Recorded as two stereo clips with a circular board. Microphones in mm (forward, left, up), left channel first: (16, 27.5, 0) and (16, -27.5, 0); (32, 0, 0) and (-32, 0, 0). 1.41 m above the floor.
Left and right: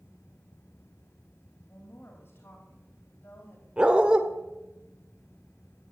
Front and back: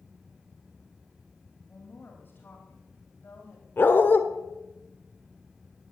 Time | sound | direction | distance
1.7 | a woman speaking | 55° left | 2.5 m
3.8 | a dog barking | 30° right | 1.2 m